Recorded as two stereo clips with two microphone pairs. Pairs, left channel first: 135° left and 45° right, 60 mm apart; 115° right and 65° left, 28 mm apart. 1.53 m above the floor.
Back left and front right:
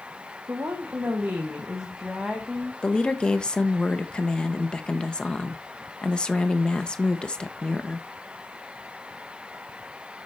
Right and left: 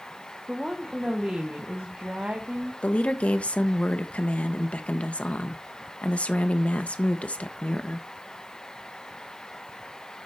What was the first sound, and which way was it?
A woman speaking, 5° right.